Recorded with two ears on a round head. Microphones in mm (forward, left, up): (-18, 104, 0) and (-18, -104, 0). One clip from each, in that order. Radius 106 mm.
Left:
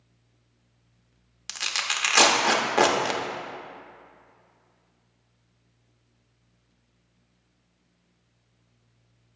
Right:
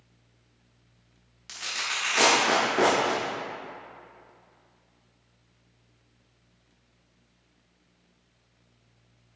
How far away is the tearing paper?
About 0.9 m.